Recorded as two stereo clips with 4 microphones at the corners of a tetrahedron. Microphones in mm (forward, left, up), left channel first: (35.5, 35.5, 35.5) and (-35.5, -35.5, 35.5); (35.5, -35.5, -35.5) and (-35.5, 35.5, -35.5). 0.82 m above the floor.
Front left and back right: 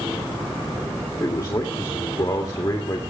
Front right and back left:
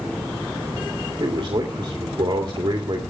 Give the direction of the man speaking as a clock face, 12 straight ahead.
9 o'clock.